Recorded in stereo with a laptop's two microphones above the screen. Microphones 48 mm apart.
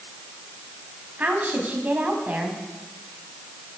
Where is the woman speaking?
35° right (ahead or behind), 6.5 m.